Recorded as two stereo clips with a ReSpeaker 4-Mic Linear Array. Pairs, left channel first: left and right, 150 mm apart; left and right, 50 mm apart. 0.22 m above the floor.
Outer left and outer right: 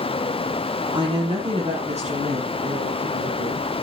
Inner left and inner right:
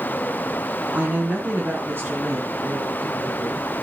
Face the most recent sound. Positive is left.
turn(degrees=-65)  # may be behind; listen again after turning